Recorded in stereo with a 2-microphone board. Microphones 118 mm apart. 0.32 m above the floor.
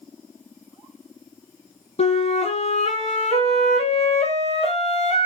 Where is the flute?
75° left (ahead or behind), 0.9 m.